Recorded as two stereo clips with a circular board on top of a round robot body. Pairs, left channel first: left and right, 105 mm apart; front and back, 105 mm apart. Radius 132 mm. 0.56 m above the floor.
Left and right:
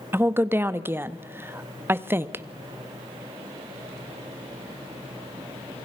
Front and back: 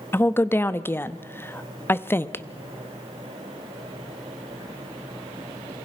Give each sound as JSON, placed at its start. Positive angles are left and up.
{"t": 0.1, "sound": "a woman speaking", "azimuth_deg": -45, "distance_m": 0.9}